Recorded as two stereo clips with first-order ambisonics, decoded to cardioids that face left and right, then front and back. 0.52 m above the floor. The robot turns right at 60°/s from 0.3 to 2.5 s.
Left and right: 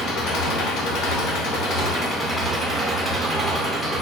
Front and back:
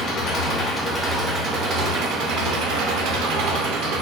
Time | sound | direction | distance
0.0 | an engine running | 45° left | 0.7 m